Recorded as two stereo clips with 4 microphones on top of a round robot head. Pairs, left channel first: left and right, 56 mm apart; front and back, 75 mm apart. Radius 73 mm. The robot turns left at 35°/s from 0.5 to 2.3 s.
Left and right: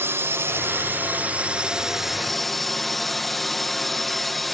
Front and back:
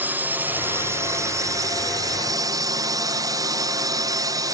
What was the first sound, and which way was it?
A drone, 120° right.